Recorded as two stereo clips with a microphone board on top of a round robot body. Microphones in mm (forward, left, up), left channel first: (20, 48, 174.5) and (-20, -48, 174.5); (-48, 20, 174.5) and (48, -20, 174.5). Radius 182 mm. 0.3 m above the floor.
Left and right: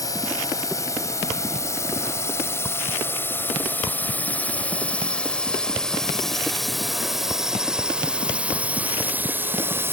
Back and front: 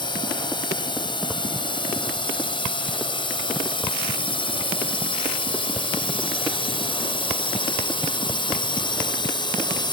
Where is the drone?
120° left; by 9.9 s 175° right.